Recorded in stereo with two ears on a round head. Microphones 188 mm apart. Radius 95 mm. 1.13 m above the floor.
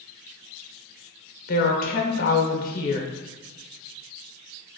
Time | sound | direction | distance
1.5 | a woman speaking | 45° left (ahead or behind) | 0.8 m